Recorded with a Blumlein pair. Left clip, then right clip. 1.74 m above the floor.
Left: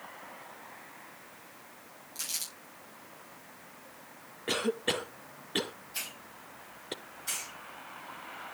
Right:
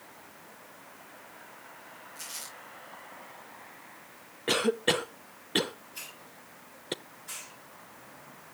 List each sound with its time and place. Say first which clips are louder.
2.1 s crumpling: left 5 dB; 60° left, 7.5 m
4.5 s a cough: right 4 dB; 15° right, 0.7 m
5.9 s a hiss: left 4 dB; 40° left, 4 m